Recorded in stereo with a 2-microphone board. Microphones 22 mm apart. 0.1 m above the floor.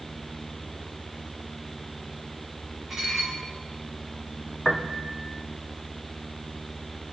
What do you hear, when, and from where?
2.9 s dishes clattering: 15° right (ahead or behind), 4 m
4.7 s a piano: 25° left (ahead or behind), 1.2 m